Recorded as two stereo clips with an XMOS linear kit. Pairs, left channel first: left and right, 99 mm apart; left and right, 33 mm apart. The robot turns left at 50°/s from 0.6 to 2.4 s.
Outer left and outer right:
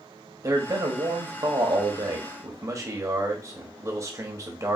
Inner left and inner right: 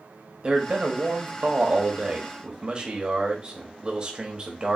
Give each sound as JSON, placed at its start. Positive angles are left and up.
{"t": 0.4, "sound": "a man speaking", "azimuth_deg": -45, "distance_m": 0.9}